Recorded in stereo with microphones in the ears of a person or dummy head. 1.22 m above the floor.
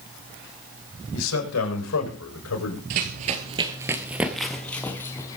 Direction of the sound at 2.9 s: 45° right (ahead or behind).